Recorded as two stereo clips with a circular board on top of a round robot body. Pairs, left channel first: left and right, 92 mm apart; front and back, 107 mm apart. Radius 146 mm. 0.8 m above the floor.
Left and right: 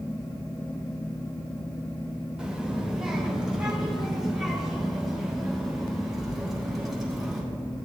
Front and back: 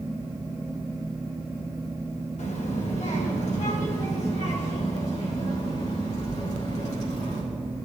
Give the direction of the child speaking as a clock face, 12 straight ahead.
12 o'clock.